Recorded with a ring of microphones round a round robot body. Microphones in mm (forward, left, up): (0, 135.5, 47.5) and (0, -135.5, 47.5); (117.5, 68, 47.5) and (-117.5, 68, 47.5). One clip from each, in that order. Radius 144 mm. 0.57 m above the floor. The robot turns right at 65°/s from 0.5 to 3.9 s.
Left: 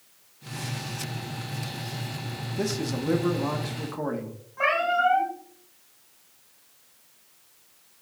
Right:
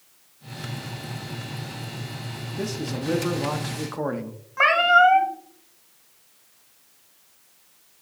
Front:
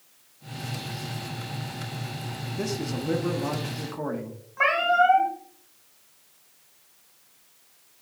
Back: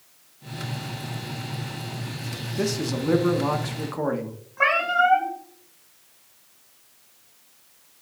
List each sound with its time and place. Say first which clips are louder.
2.6 s a man speaking: left 1 dB, back 5 dB; 135° left, 0.9 m; by 4.4 s 140° right, 0.9 m
4.6 s a cat meowing: right 7 dB, back 1 dB; 75° right, 1.8 m